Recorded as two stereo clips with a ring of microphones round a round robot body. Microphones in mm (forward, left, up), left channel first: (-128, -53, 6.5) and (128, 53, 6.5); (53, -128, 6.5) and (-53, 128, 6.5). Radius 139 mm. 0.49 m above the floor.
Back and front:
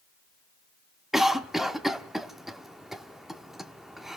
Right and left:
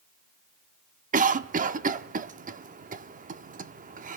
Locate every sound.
1.1 s a cough: 110° left, 0.8 m